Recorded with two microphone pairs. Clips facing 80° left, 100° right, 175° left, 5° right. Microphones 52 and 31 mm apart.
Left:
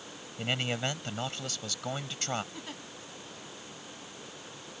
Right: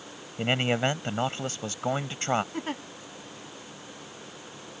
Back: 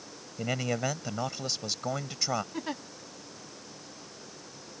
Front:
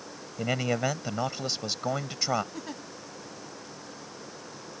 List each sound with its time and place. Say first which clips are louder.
0.4 s a man speaking: right 7 dB, front 3 dB; 70° right
2.5 s a giggle: right 10 dB, back 3 dB; 130° right